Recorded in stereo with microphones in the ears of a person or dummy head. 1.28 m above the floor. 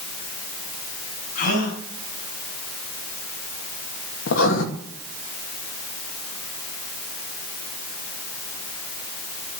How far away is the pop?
No pop in this recording.